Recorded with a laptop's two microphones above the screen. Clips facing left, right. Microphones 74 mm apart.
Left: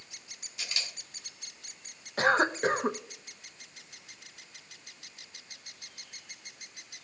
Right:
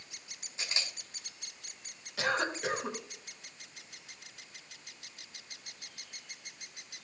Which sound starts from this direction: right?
A camera shutter, at 0.6 s.